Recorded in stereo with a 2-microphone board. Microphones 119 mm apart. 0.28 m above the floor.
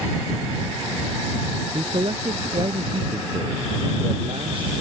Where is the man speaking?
45° right (ahead or behind).